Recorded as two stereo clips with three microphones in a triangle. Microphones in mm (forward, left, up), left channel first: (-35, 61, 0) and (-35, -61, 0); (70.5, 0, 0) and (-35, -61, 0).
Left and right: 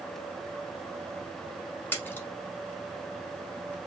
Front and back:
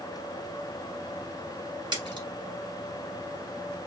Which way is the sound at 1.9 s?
165° left.